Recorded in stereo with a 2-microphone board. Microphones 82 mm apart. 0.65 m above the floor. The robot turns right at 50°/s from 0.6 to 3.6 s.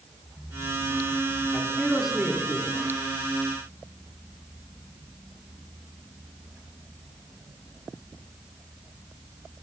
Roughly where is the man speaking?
Behind.